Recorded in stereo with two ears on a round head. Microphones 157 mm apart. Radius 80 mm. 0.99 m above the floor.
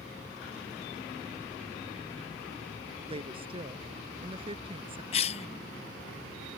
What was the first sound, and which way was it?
A woman speaking, 30° right (ahead or behind).